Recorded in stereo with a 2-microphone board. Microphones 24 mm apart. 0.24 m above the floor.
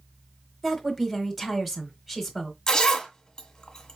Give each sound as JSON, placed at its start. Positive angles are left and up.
{"t": 0.6, "sound": "a woman speaking", "side_deg": -5, "distance_m": 1.2}
{"t": 2.7, "sound": "a zipper", "side_deg": 25, "distance_m": 1.2}